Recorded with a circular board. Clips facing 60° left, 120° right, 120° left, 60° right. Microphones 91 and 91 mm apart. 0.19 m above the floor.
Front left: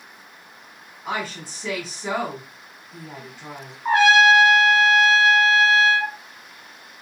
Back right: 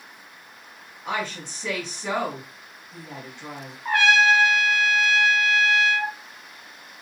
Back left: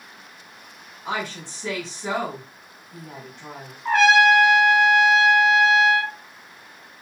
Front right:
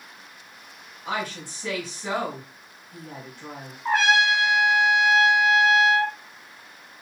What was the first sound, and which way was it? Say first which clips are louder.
A woman speaking: even, back left 1 dB; 135° left.